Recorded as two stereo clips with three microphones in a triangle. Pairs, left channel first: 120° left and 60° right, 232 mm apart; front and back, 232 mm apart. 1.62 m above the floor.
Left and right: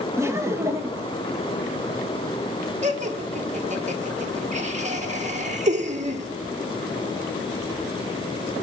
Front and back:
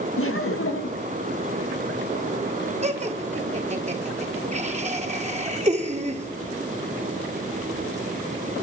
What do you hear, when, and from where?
0.2 s laughter: 20° left, 1.8 m
2.8 s laughter: 120° right, 1.7 m